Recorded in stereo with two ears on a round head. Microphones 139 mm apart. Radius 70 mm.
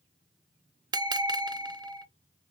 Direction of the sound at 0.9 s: 25° right (ahead or behind).